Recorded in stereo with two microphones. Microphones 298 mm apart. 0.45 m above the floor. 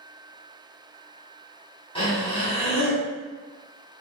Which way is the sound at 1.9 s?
20° left (ahead or behind).